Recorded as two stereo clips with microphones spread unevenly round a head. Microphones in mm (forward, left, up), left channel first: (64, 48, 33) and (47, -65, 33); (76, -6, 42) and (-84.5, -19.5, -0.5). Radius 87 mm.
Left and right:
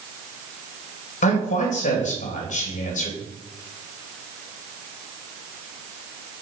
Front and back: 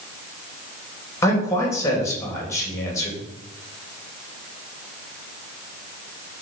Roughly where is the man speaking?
Left.